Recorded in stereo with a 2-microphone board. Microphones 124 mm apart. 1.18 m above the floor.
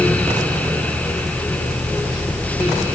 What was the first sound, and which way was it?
Only background noise.